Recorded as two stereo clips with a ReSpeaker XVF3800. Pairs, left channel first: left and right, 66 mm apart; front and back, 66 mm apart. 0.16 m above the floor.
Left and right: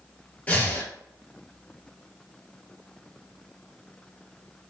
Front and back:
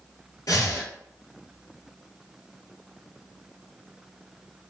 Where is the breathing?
20° left, 0.6 m.